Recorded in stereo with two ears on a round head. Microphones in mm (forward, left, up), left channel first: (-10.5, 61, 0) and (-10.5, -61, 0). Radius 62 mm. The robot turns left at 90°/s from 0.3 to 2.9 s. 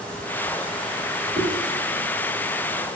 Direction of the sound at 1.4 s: 40° right (ahead or behind).